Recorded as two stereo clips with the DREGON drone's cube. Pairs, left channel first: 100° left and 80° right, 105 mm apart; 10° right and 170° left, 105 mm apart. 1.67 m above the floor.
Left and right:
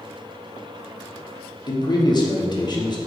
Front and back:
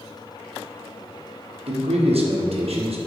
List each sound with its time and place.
1.7 s a man speaking: 145° left, 1.0 m